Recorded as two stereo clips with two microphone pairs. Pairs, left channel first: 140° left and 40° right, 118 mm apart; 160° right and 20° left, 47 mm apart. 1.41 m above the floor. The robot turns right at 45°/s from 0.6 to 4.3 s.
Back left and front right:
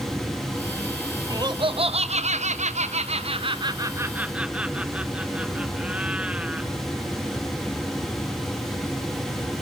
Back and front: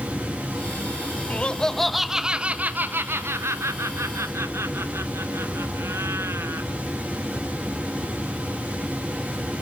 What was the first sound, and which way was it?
Laughter, 100° right.